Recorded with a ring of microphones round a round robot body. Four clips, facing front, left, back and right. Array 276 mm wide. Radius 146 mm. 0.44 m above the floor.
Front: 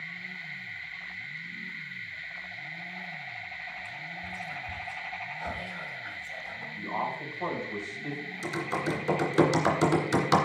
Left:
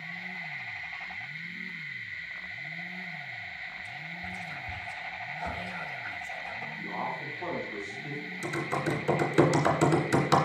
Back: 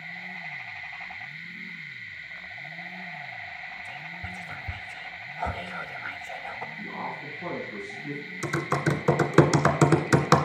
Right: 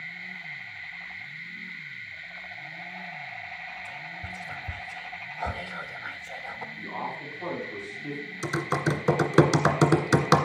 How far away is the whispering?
About 1.3 m.